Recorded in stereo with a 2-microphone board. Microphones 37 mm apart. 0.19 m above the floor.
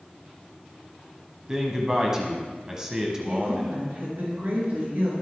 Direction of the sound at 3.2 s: 55° right (ahead or behind).